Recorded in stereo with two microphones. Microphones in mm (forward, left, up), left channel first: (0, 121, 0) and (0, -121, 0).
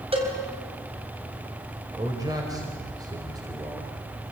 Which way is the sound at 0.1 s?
25° right (ahead or behind).